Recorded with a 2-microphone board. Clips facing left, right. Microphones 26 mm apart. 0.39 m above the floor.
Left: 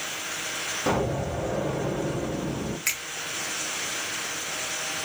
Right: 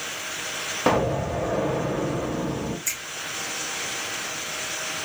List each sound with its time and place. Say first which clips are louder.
0.9 s an explosion: right 5 dB; 40° right (ahead or behind), 0.9 m
2.9 s a finger snap: left 2 dB; 55° left (ahead or behind), 1.1 m